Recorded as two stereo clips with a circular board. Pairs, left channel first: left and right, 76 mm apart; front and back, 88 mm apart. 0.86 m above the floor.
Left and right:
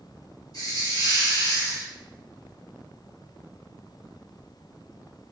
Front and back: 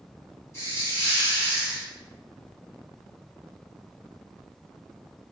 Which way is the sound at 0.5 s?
55° left.